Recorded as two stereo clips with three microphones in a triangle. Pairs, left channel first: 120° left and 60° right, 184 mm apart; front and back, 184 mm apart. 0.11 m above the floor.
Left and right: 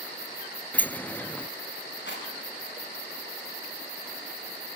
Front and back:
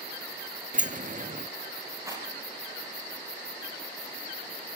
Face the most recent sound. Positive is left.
turn(degrees=105)